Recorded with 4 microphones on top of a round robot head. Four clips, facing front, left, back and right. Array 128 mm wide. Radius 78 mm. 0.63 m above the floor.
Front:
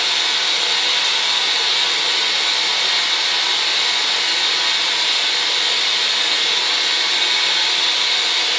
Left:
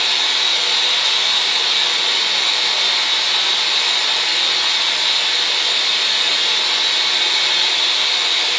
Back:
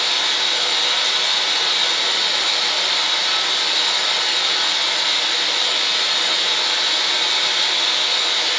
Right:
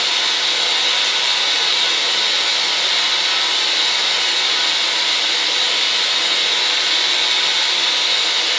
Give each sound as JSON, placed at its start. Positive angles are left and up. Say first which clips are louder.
{"t": 0.0, "sound": "running water", "louder": "even, even", "azimuth_deg": -145, "distance_m": 0.9}